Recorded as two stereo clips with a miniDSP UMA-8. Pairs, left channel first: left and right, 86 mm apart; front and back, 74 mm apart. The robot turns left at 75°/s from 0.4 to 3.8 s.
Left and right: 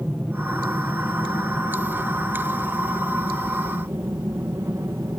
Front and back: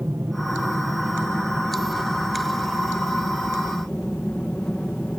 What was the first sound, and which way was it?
An aircraft, 160° right.